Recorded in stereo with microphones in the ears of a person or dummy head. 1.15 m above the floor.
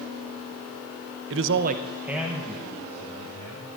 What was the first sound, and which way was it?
A man speaking, 65° right (ahead or behind).